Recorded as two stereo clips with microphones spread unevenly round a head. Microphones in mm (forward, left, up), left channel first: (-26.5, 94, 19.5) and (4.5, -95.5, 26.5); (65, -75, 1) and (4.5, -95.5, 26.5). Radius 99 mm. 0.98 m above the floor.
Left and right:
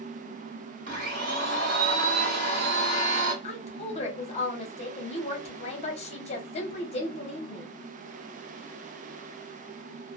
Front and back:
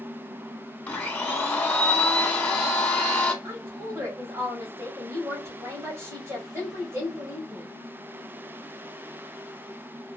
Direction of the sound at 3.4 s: 135° left.